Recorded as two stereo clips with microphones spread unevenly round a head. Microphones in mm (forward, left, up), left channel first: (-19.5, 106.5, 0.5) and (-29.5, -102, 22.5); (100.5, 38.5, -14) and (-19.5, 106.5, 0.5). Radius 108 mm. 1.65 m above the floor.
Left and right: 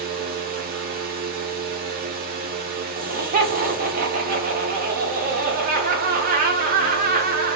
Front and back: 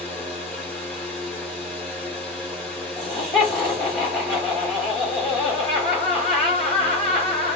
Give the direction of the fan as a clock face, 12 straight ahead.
4 o'clock.